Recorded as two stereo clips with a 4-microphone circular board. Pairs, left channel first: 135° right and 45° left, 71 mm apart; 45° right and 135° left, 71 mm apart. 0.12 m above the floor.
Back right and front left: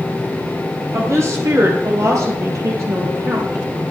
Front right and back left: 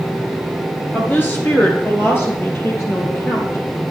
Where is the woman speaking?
10° left, 2.5 m; by 3.6 s straight ahead, 4.5 m.